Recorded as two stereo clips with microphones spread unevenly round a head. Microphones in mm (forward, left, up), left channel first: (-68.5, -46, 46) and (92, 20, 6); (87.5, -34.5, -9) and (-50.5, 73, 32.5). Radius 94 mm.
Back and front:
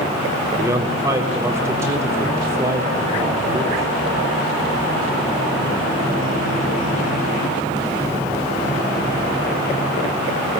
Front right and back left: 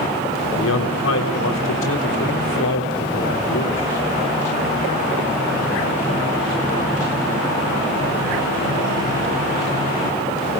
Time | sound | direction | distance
0.6 | a man speaking | 55° right | 4 m